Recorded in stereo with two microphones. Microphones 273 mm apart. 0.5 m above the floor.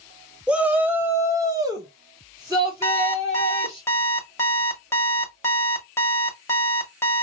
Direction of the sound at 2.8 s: 10° left (ahead or behind).